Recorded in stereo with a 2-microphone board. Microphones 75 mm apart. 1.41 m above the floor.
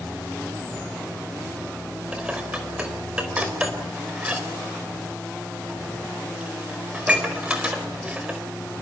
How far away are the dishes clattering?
About 4.5 m.